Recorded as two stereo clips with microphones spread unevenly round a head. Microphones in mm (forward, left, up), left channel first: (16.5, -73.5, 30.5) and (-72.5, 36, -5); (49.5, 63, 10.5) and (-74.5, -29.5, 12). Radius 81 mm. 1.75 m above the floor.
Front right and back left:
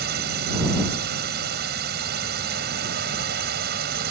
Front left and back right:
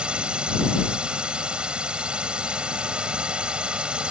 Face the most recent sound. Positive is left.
turn(degrees=135)